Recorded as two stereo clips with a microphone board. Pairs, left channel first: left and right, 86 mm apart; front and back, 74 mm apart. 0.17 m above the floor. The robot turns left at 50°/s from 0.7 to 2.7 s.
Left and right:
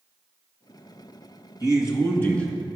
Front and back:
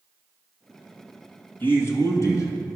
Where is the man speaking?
60° left, 1.7 m; by 2.8 s 5° left, 1.7 m.